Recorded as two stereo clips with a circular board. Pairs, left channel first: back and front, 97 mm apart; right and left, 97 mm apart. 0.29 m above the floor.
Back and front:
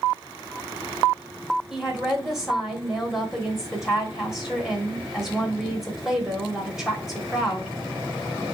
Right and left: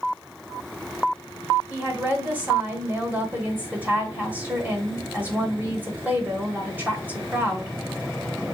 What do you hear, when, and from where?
1.7 s a woman speaking: 80° left, 1.1 m